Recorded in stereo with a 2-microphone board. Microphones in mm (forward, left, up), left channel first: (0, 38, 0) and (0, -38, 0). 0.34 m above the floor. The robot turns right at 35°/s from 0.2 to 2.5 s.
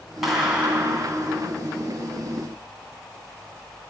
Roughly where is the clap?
Behind.